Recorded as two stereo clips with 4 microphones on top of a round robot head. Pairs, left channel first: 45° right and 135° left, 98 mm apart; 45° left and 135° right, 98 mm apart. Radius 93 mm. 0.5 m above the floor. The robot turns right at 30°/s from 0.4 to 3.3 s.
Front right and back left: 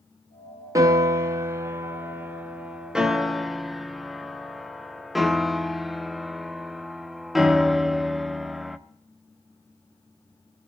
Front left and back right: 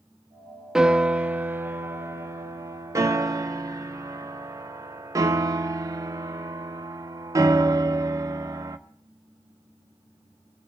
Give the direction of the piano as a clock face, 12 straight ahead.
7 o'clock.